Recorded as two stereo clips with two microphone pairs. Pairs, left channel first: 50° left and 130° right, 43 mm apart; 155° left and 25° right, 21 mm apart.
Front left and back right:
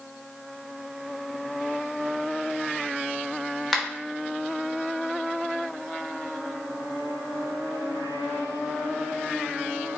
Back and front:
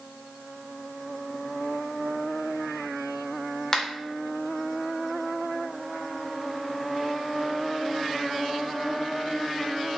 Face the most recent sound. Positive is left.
turn(degrees=130)